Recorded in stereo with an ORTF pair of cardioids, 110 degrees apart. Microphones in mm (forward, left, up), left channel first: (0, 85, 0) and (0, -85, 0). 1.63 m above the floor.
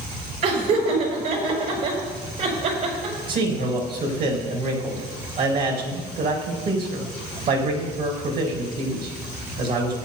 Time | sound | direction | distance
0.4 | laughter | 65° right | 6 m
3.3 | a man speaking | 65° right | 4 m